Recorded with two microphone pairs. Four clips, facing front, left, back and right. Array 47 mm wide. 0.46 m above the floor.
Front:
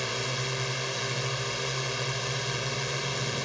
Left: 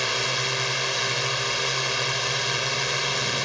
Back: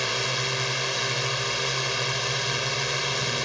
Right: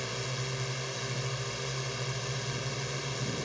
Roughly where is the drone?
Behind left.